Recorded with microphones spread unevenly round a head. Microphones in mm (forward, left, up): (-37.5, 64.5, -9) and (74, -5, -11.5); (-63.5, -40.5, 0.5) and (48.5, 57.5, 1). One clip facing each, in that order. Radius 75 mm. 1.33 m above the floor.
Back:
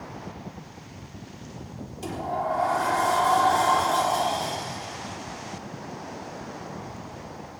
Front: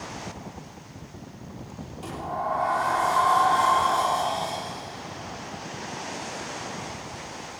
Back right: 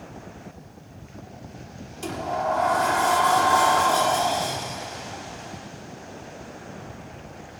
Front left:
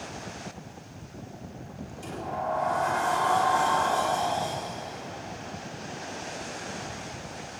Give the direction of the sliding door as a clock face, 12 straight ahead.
5 o'clock.